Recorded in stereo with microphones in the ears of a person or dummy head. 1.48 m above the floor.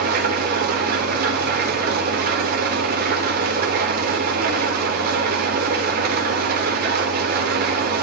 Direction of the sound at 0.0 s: 55° right (ahead or behind).